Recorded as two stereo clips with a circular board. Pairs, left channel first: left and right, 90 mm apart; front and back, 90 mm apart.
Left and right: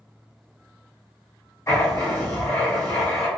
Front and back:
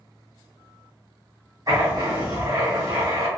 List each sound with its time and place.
1.7 s writing: 145° left, 1.7 m